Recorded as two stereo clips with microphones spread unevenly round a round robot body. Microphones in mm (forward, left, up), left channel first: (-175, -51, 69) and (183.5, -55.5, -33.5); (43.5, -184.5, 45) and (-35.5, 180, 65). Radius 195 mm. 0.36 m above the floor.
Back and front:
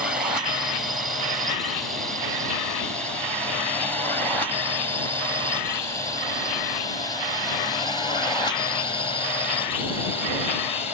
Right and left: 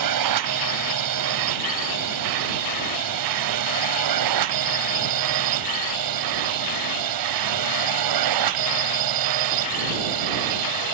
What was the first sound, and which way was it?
A drone, 75° left.